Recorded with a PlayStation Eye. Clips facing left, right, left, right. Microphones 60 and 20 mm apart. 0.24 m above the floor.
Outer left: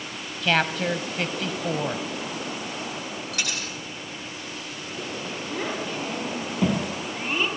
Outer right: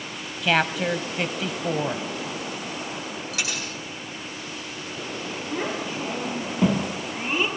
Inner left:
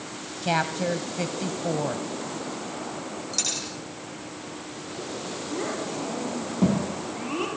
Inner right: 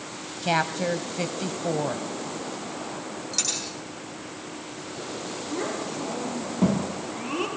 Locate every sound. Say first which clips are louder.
0.4 s a woman speaking: outer right 1 dB, inner right 1 dB; 5° right (ahead or behind), 1.1 m
3.3 s a dropped coin: outer right 1 dB, even; 5° right (ahead or behind), 6.5 m
5.5 s a child speaking: outer right 1 dB, even; 5° right (ahead or behind), 5 m